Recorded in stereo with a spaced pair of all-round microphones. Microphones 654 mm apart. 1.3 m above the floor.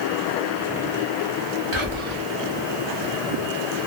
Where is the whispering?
45° right (ahead or behind), 0.9 m.